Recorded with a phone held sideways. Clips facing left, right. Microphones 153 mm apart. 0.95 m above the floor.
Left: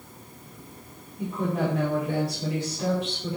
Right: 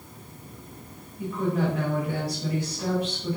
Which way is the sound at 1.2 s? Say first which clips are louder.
Right 1 dB; 25° left (ahead or behind).